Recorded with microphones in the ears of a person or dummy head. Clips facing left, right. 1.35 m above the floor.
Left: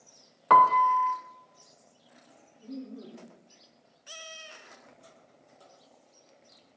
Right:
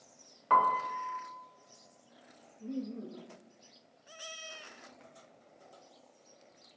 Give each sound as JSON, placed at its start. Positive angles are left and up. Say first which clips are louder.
{"t": 0.5, "sound": "a piano", "louder": "left 8 dB", "side_deg": 65, "distance_m": 0.7}
{"t": 2.6, "sound": "laughter", "louder": "right 2 dB", "side_deg": -35, "distance_m": 2.0}